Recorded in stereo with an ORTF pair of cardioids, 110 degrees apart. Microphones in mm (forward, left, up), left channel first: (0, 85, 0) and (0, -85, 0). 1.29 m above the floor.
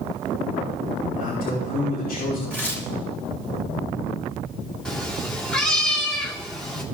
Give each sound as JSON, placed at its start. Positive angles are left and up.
{"t": 1.2, "sound": "a man speaking", "azimuth_deg": 65, "distance_m": 3.5}
{"t": 2.5, "sound": "tearing paper", "azimuth_deg": 10, "distance_m": 2.5}
{"t": 4.8, "sound": "a cat meowing", "azimuth_deg": 5, "distance_m": 1.8}